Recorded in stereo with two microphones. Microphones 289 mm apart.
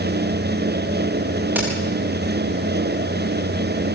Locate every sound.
1.6 s a crack: 5° right (ahead or behind), 9.5 m